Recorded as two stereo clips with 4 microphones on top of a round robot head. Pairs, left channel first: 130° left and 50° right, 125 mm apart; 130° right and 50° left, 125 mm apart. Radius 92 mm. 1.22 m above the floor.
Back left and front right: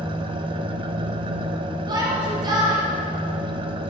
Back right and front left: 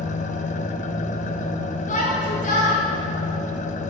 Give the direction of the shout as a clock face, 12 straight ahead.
4 o'clock.